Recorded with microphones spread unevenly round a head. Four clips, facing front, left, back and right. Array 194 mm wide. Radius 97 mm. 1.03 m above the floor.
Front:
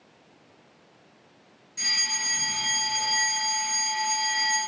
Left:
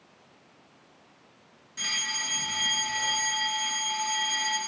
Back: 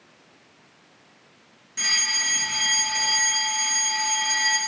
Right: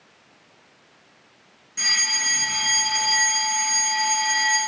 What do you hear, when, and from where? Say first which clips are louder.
1.8 s a fire alarm: right 6 dB, back 4 dB; 155° right, 4 m